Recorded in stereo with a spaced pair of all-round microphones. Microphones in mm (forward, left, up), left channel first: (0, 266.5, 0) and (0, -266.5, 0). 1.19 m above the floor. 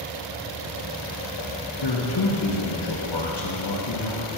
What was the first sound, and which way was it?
A man speaking, 50° left (ahead or behind).